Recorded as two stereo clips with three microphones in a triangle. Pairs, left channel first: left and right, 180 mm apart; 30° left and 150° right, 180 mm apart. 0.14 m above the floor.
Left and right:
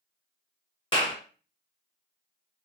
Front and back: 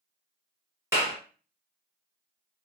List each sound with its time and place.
0.9 s a clap: 140° left, 1.6 m